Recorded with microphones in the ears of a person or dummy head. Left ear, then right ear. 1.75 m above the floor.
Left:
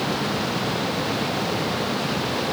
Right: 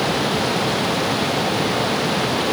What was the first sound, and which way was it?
Only background noise.